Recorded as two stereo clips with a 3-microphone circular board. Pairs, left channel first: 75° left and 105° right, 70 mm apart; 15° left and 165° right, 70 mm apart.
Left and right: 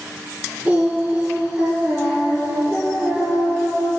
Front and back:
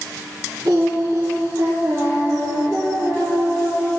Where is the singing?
175° right, 1.9 m.